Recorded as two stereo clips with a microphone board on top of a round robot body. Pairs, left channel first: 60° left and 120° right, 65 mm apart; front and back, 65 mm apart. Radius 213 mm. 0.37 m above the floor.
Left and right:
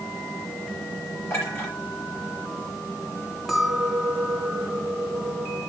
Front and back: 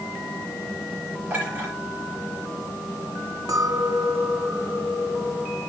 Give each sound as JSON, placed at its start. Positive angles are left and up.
{"t": 1.3, "sound": "a clink", "azimuth_deg": 115, "distance_m": 6.5}
{"t": 3.5, "sound": "a clink", "azimuth_deg": 145, "distance_m": 3.0}